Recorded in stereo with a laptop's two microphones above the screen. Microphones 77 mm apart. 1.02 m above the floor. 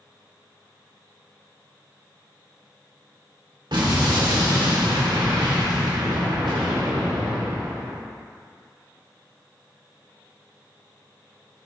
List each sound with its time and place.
3.7 s an explosion: 70° right (ahead or behind), 1.4 m